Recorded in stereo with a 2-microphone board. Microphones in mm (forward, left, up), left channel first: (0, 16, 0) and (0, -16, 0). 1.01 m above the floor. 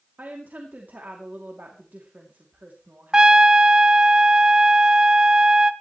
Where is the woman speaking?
70° right (ahead or behind), 2.5 m.